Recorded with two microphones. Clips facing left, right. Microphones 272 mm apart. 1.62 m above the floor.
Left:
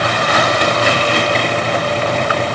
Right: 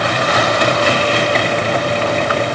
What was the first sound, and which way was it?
Only background noise.